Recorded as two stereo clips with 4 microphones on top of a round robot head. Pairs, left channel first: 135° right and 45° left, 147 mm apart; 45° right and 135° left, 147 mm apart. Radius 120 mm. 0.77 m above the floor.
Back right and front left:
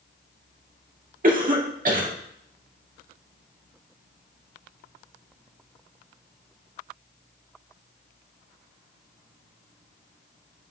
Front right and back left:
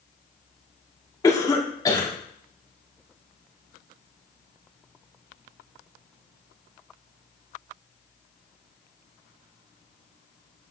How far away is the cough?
About 2 m.